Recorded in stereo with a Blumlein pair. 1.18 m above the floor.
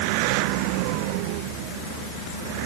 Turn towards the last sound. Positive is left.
No sound to turn to.